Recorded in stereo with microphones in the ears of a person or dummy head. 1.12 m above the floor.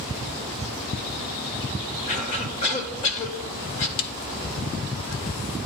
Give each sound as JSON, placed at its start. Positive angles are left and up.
{"t": 2.1, "sound": "a cough", "side_deg": 40, "distance_m": 2.0}
{"t": 4.0, "sound": "a snare drum", "side_deg": 50, "distance_m": 0.6}